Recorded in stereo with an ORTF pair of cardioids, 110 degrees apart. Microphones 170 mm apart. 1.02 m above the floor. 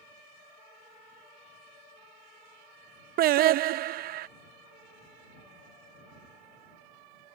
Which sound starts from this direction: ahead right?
Singing, at 3.2 s.